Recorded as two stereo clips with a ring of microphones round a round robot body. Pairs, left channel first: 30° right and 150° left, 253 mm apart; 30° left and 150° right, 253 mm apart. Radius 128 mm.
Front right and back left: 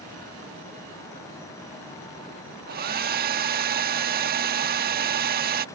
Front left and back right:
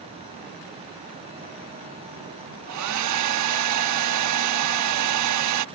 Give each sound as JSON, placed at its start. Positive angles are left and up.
{"t": 2.7, "sound": "a hair dryer", "azimuth_deg": -155}